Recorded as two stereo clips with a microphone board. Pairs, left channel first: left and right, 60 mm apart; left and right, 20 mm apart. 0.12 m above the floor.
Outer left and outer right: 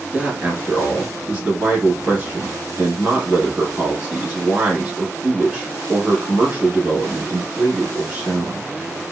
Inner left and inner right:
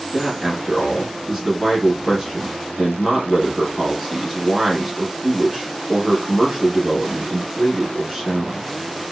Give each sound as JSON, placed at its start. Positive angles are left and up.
{"t": 0.1, "sound": "a man speaking", "side_deg": -25, "distance_m": 1.5}